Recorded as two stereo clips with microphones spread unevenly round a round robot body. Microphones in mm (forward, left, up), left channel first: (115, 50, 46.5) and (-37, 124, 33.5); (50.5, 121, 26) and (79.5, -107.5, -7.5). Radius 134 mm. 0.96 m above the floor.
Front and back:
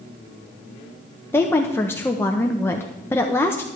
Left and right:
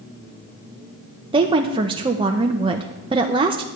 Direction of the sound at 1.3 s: 100° right.